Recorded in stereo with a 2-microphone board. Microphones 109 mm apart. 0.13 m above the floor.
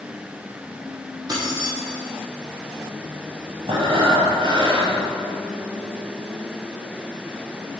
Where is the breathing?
55° right (ahead or behind), 1.3 m.